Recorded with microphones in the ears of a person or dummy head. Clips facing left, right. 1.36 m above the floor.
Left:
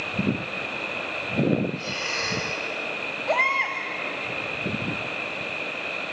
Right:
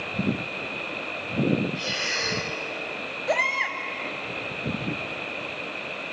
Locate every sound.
1.8 s breathing: 15° right (ahead or behind), 3 m
3.3 s a baby crying: 20° right (ahead or behind), 1.3 m